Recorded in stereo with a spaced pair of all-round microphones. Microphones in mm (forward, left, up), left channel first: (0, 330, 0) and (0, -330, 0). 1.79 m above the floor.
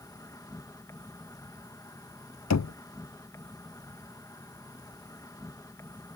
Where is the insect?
5° left (ahead or behind).